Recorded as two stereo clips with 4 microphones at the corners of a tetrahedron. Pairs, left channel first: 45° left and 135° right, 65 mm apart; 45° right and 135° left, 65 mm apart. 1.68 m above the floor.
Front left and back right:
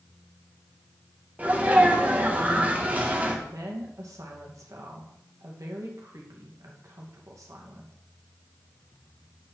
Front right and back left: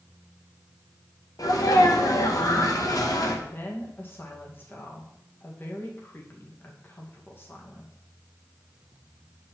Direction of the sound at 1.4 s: 70° right.